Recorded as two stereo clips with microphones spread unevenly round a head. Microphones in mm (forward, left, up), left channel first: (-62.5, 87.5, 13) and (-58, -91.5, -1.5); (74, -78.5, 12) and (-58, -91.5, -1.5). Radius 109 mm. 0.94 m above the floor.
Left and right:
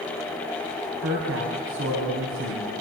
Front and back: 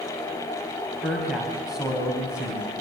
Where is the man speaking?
85° right, 6 m; by 2.7 s 90° right, 6 m.